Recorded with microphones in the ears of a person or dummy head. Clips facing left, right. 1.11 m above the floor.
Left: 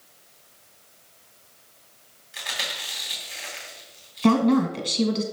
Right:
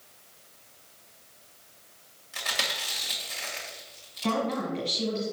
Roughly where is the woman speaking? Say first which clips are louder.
Left 10 dB; left.